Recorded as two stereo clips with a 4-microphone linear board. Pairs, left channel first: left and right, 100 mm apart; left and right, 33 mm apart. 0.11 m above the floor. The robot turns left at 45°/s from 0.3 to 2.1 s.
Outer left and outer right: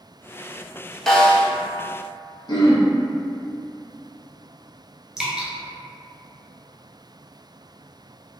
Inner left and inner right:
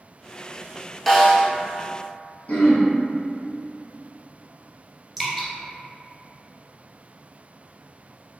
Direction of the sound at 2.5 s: 50° left (ahead or behind).